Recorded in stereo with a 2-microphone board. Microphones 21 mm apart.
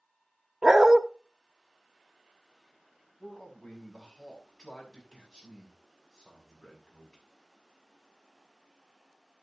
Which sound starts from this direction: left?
A man speaking, at 3.2 s.